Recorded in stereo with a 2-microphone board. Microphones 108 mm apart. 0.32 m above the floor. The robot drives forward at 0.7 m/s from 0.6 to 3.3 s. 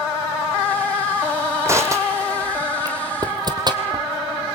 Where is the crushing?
25° right (ahead or behind), 3 m; by 4.0 s 40° right (ahead or behind), 2.0 m.